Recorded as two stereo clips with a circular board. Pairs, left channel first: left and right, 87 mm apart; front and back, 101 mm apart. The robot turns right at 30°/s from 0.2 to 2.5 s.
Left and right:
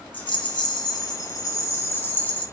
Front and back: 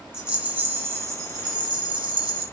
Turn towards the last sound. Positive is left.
turn(degrees=165)